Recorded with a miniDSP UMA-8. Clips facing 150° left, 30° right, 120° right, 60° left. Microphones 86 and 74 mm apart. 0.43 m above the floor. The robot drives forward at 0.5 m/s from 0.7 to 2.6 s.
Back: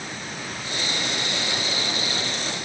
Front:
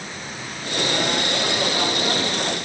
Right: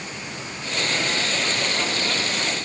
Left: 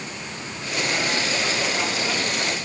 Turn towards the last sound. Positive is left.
No sound to turn to.